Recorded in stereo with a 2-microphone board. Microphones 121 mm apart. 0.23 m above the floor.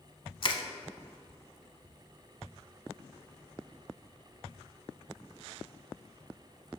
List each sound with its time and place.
0.4 s crushing: 45° left (ahead or behind), 0.7 m